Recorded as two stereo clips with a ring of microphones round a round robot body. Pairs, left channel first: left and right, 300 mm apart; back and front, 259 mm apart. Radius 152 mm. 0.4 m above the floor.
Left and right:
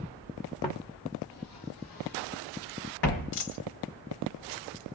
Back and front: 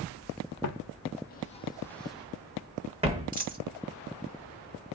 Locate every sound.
0.6 s footsteps: 165° left, 0.8 m; by 3.4 s 65° left, 1.4 m
3.3 s a dropped coin: 60° left, 1.4 m